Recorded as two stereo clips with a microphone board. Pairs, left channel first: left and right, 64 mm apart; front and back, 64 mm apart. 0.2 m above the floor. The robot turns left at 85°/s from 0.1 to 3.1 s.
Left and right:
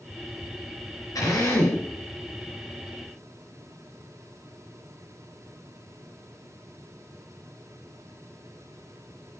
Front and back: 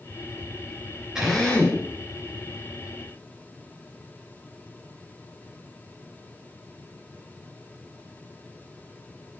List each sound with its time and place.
1.1 s a drill: 100° left, 3.5 m; by 1.8 s 40° left, 3.5 m